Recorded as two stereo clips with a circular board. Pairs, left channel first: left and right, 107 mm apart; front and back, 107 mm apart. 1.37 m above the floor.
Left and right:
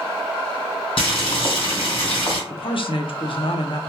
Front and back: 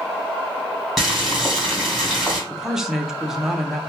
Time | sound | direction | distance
1.0 | boiling | 90° left | 2.5 m
2.5 | a man speaking | 95° left | 0.6 m